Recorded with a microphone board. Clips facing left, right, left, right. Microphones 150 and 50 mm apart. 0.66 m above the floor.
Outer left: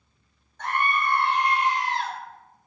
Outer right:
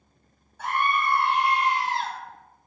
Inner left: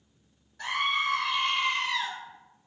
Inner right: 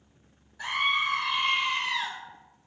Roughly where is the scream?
Centre.